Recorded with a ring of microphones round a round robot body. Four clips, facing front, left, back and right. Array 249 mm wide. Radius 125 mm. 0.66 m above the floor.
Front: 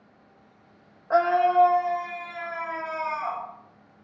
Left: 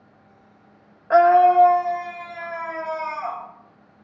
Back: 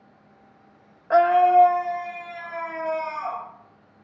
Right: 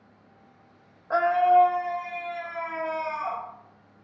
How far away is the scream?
About 0.5 m.